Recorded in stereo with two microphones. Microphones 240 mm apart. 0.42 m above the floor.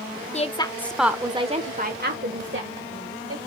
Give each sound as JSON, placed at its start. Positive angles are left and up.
{"t": 0.3, "sound": "a woman speaking", "side_deg": 30, "distance_m": 1.0}